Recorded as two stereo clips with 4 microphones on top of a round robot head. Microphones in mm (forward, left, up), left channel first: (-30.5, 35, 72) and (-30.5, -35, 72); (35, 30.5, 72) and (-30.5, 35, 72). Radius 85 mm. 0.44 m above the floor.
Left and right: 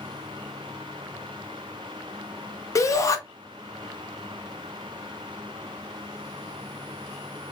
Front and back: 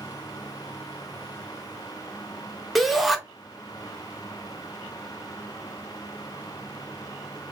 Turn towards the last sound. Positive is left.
turn(degrees=85)